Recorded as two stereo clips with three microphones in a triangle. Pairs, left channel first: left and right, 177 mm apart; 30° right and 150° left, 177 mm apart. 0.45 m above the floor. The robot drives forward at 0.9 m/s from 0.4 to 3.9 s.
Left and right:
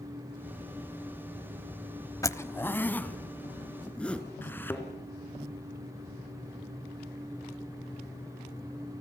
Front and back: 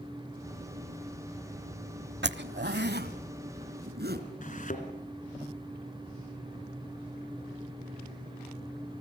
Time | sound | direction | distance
2.2 | a zipper | 160° left | 0.7 m
4.4 | a thud | 10° left | 2.5 m